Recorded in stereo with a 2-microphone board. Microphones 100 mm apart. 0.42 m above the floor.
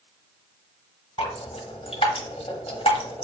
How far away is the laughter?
No laughter in this recording.